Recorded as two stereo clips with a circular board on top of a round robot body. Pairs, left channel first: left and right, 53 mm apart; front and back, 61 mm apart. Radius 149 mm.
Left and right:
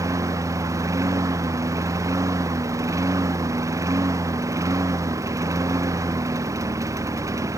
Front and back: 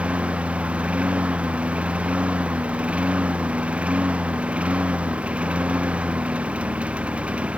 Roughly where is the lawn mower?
Right.